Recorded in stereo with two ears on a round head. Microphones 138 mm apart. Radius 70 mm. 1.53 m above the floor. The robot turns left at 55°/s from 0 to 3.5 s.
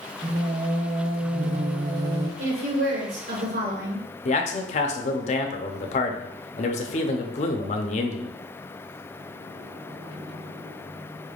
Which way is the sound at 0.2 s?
40° right.